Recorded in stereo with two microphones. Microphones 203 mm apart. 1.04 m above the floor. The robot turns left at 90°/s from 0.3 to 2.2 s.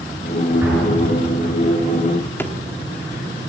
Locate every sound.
0.6 s an explosion: 10° right (ahead or behind), 9 m; by 1.7 s 90° left, 9 m
2.4 s a drawer: 10° left (ahead or behind), 1.5 m